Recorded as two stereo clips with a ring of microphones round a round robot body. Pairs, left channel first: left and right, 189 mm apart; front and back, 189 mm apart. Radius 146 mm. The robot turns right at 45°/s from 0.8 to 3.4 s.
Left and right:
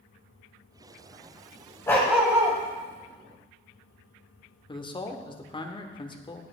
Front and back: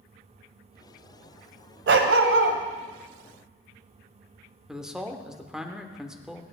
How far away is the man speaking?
About 1.2 m.